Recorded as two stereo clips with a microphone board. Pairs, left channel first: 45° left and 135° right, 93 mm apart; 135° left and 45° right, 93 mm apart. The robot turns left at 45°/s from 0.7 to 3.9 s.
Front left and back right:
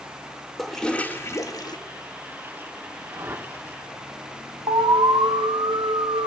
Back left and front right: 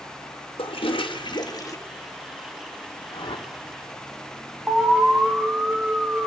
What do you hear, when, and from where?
0.6 s a toilet flushing: 130° left, 1.6 m; by 1.8 s 85° left, 1.6 m
3.1 s a whoosh: 170° left, 2 m; by 3.5 s 150° left, 2 m
4.7 s an alarm: 120° right, 1.5 m